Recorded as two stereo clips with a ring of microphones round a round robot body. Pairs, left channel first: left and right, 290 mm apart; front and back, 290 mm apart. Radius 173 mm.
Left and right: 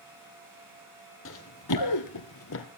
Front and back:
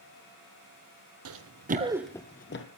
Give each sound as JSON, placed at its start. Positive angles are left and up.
{"t": 1.2, "sound": "running footsteps", "azimuth_deg": 145, "distance_m": 1.5}